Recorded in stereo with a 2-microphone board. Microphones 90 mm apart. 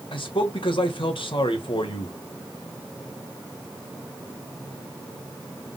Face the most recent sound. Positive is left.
turn(degrees=70)  # may be behind; listen again after turning